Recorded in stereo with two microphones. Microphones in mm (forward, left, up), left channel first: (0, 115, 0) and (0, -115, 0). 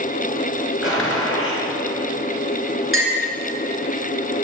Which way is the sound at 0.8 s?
65° left (ahead or behind).